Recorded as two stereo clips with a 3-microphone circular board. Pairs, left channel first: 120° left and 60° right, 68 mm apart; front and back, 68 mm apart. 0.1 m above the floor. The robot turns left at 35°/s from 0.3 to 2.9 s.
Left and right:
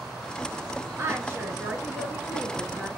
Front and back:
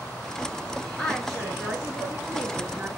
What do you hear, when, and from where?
1.0 s a woman speaking: 85° right, 1.4 m; by 2.9 s 150° right, 1.4 m